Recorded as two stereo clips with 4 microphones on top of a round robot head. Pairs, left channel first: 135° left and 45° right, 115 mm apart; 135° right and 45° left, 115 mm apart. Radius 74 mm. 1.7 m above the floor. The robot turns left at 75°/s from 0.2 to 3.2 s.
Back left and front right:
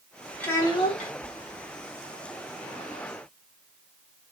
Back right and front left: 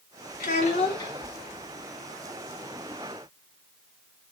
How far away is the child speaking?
About 1.2 m.